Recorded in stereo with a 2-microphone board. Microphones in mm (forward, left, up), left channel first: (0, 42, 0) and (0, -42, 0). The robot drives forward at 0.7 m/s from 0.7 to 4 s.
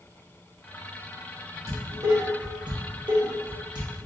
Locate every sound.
1.7 s dishes clattering: 40° right (ahead or behind), 1.5 m; by 4.1 s 55° right (ahead or behind), 1.2 m